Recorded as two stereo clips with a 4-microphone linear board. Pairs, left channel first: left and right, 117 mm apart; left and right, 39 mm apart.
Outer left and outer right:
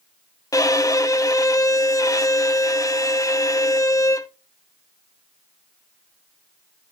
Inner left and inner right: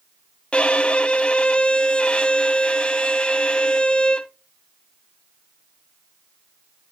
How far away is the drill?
No drill in this recording.